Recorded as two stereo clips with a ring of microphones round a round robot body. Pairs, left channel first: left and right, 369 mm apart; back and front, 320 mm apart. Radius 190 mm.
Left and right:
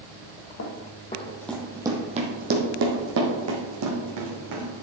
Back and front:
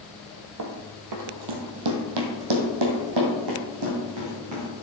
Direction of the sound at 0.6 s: 35° left.